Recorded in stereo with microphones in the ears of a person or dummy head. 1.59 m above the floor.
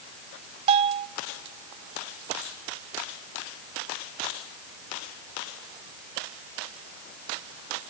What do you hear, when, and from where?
0.7 s a bell: 30° right (ahead or behind), 1.1 m